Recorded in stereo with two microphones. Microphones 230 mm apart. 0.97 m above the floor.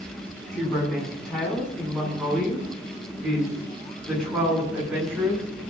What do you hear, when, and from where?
0.5 s a woman speaking: centre (ahead or behind), 9.5 m; by 5.6 s 5° right (ahead or behind), 12 m